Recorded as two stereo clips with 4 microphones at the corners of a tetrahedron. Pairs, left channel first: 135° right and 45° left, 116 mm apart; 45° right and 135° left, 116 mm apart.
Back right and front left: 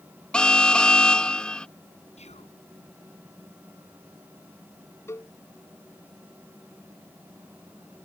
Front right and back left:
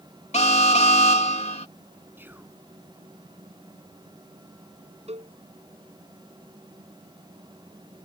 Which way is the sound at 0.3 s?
55° right.